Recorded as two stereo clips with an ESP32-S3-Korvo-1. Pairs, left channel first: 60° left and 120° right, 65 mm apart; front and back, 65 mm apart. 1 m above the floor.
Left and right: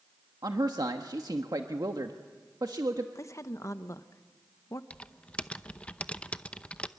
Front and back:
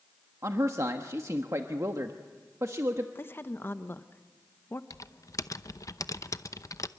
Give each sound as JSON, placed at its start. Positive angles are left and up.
{"t": 0.4, "sound": "a man speaking", "azimuth_deg": -140, "distance_m": 1.3}
{"t": 3.1, "sound": "a woman speaking", "azimuth_deg": 45, "distance_m": 1.0}
{"t": 4.9, "sound": "typing on a keyboard", "azimuth_deg": -10, "distance_m": 0.7}